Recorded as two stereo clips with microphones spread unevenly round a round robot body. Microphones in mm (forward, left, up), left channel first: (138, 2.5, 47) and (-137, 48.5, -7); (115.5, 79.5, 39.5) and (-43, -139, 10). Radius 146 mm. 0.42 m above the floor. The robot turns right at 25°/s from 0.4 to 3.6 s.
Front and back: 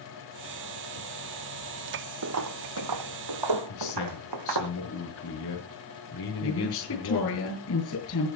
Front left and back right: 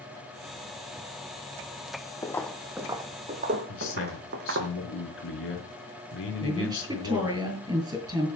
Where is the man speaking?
15° left, 4.5 m.